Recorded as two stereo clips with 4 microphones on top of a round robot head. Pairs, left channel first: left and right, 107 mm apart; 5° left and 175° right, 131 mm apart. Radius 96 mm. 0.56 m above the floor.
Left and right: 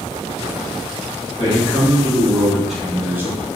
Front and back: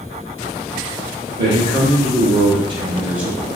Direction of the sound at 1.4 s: 165° left.